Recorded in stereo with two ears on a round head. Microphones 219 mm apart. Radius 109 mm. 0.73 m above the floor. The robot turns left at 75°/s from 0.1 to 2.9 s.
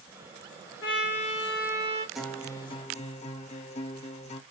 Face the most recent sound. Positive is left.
turn(degrees=125)